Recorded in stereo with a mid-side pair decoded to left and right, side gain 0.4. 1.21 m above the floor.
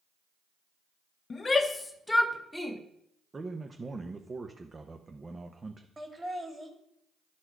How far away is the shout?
About 1.1 m.